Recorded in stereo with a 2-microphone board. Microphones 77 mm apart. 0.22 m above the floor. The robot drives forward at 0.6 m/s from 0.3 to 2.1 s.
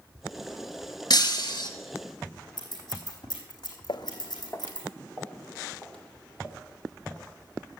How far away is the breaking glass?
About 1.7 m.